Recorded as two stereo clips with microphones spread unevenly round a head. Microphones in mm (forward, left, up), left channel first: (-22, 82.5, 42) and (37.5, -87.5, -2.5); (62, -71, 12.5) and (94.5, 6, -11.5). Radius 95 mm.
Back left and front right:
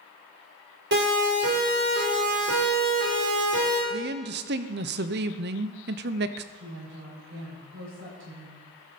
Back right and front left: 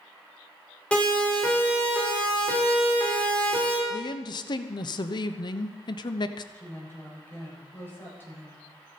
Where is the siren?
40° right, 7.5 m; by 3.8 s 45° right, 6.5 m.